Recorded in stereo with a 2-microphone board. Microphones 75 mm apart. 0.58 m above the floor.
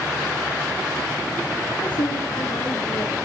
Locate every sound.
1.7 s a woman speaking: 80° left, 9.5 m